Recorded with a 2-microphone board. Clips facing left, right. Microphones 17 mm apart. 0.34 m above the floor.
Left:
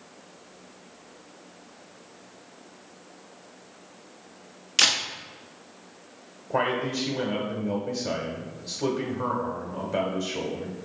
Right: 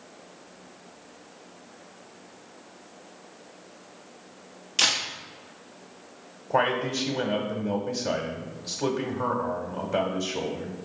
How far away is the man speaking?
About 0.8 m.